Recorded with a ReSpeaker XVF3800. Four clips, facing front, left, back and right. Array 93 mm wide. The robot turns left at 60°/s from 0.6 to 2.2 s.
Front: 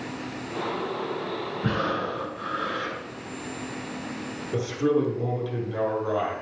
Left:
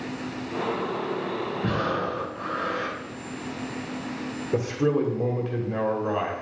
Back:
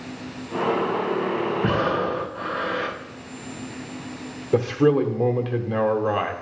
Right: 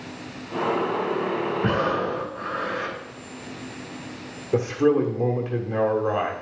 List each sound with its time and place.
1.6 s breathing: 140° right, 1.6 m; by 3.0 s 175° right, 1.6 m
4.5 s a man speaking: 170° right, 1.3 m